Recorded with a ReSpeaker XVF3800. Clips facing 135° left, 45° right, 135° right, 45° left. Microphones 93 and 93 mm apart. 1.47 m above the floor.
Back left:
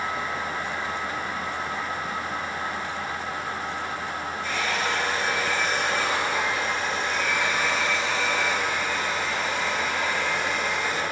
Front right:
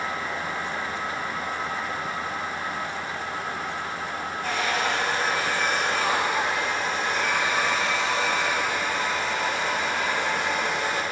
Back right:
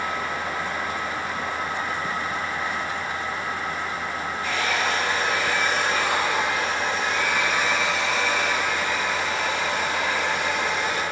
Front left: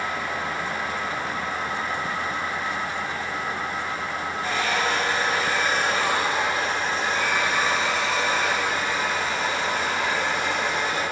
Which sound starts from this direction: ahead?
A hair dryer, at 4.4 s.